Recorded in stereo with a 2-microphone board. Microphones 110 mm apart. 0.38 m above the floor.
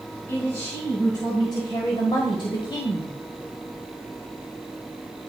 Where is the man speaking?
30° left (ahead or behind), 2.5 m; by 3.1 s 40° left (ahead or behind), 1.1 m.